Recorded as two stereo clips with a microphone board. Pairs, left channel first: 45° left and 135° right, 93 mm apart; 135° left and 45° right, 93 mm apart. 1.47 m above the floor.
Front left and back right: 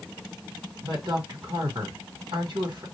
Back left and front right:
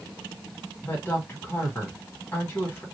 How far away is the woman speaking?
About 1.9 m.